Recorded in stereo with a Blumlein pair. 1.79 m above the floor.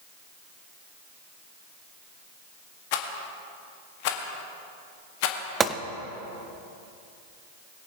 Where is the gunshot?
20° right, 0.6 m.